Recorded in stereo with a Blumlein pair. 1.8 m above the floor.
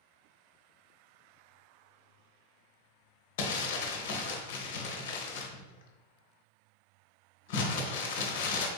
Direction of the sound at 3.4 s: 50° left.